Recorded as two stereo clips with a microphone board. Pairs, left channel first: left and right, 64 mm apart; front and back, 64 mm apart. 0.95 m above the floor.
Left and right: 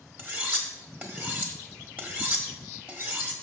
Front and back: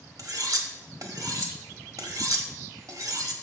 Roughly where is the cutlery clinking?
Behind right.